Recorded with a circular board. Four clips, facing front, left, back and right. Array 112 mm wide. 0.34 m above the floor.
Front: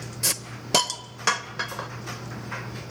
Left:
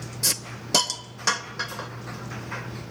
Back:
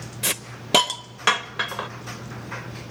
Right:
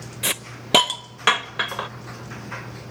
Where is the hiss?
115° right, 0.6 m.